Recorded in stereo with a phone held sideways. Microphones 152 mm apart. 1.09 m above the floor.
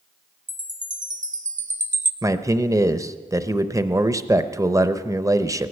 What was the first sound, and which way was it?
A chime, 55° right (ahead or behind).